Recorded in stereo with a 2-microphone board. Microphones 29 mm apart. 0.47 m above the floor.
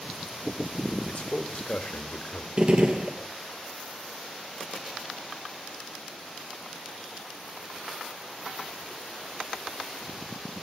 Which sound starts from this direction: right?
A gunshot, at 2.6 s.